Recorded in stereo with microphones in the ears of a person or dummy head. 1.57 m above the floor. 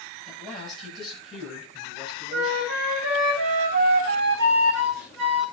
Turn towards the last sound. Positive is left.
turn(degrees=-70)  # may be behind; listen again after turning